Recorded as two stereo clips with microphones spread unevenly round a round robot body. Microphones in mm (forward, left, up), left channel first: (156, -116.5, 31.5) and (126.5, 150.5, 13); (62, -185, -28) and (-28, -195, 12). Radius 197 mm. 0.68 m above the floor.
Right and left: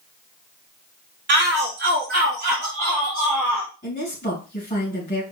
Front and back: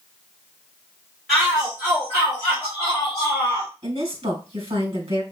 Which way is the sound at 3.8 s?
160° right.